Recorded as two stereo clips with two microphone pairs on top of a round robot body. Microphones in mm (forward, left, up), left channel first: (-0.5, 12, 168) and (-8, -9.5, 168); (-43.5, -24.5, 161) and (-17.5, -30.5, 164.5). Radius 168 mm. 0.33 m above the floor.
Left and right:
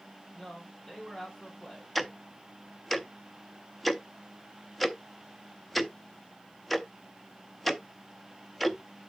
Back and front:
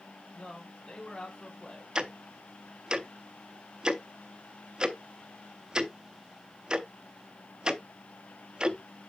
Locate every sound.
0.3 s a man speaking: 140° left, 3 m
1.9 s ticking: 5° right, 1.2 m